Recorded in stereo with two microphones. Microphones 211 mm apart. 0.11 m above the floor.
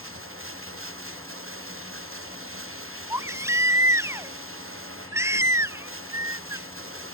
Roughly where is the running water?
Right.